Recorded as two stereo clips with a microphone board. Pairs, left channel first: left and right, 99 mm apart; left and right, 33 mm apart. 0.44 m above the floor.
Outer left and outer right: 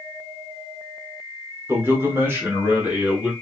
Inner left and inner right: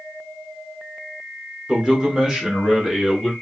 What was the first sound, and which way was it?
A man speaking, 25° right (ahead or behind).